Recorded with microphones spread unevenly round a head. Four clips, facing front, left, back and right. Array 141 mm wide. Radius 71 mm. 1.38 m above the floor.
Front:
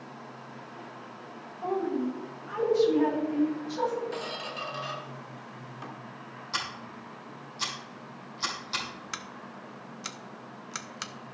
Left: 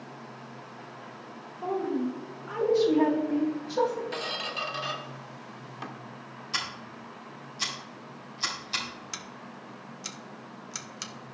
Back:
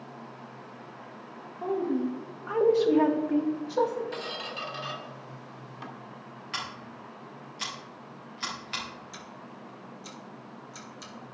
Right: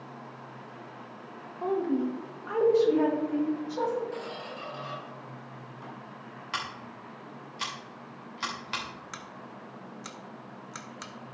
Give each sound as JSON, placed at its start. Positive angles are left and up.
{"t": 1.6, "sound": "a woman speaking", "azimuth_deg": -125, "distance_m": 1.8}
{"t": 4.1, "sound": "a squeak", "azimuth_deg": 85, "distance_m": 1.2}
{"t": 6.5, "sound": "scissors", "azimuth_deg": -75, "distance_m": 2.5}
{"t": 9.1, "sound": "scissors", "azimuth_deg": -15, "distance_m": 0.7}